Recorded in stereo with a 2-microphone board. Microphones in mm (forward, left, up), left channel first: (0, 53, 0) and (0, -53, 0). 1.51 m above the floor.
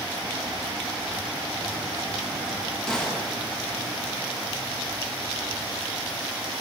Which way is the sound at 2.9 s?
10° left (ahead or behind).